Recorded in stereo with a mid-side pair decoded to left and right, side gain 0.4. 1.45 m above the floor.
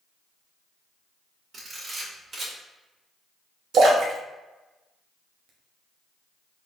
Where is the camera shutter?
50° right, 1.9 m.